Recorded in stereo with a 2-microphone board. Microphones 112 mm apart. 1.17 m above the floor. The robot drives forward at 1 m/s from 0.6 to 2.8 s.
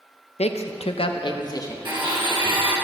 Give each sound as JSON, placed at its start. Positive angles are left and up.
{"t": 0.4, "sound": "a man speaking", "side_deg": 85, "distance_m": 0.7}
{"t": 1.9, "sound": "a blender", "side_deg": -45, "distance_m": 3.0}